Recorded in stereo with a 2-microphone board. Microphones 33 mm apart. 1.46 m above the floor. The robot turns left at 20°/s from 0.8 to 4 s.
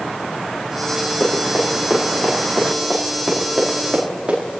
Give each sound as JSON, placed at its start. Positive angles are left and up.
{"t": 1.2, "sound": "running footsteps", "side_deg": 55, "distance_m": 7.0}